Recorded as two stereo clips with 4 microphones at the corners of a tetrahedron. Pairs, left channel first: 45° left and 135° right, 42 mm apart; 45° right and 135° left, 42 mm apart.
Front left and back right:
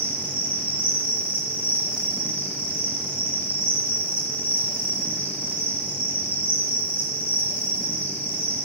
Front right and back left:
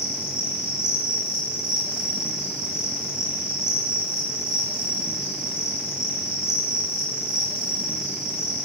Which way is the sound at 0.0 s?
65° left.